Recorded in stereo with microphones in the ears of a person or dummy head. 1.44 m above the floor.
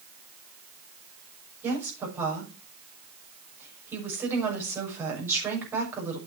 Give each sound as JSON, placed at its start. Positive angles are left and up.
{"t": 1.6, "sound": "a woman speaking", "side_deg": -10, "distance_m": 6.0}